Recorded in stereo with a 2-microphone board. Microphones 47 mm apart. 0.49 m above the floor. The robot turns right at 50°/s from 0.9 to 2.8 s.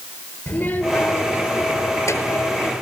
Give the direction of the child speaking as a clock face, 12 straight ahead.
11 o'clock.